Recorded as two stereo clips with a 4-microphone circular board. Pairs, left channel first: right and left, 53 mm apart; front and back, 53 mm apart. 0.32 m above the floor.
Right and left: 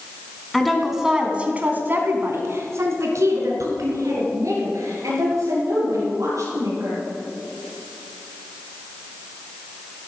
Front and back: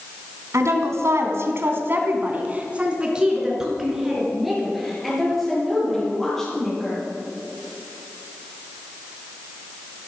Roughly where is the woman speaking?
Behind.